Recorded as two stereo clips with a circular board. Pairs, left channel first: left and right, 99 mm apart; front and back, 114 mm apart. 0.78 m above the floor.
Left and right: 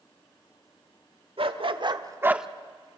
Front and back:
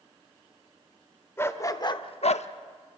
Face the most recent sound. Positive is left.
turn(degrees=-5)